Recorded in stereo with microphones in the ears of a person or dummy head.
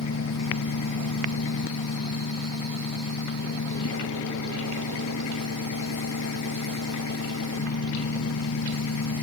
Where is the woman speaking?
I don't hear a woman speaking.